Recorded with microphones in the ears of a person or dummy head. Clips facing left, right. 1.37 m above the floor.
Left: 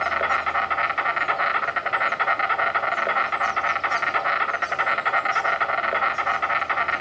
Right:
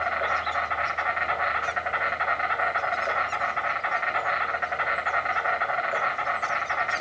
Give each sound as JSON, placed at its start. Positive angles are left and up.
{"t": 0.0, "sound": "an insect", "side_deg": 50, "distance_m": 1.3}